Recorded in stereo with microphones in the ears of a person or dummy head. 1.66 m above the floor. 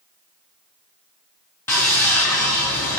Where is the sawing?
20° left (ahead or behind), 3.5 m.